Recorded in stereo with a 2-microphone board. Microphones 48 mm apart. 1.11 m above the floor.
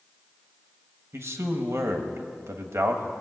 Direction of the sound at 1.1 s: 65° right (ahead or behind).